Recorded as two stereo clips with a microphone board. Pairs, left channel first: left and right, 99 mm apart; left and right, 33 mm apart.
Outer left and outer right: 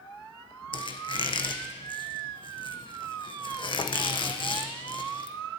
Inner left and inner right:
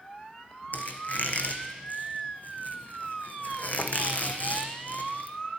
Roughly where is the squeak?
Left.